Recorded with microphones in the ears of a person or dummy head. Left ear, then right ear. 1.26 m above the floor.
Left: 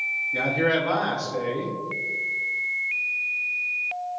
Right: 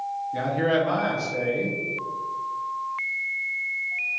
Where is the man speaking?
10° left (ahead or behind), 0.6 m.